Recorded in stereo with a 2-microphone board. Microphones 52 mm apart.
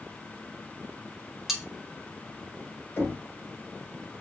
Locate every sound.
1.5 s cutlery clinking: 5° right (ahead or behind), 0.6 m
3.0 s knocking: 40° left (ahead or behind), 1.2 m